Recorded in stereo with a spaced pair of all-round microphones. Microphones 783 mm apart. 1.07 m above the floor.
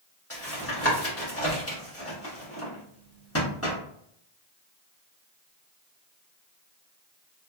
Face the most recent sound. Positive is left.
turn(degrees=20)  # may be behind; listen again after turning